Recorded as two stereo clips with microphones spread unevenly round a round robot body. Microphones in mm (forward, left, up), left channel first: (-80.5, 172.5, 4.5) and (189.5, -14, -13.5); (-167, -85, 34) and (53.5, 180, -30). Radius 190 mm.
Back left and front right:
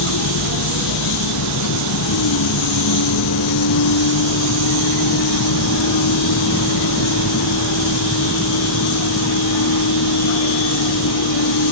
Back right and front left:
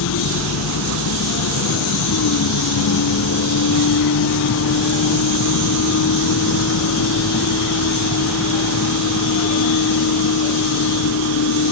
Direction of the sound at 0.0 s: 170° right.